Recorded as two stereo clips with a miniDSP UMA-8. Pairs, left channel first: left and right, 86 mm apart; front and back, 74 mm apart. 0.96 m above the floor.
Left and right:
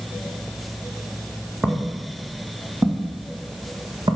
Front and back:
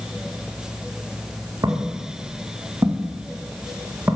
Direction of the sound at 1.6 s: 165° right.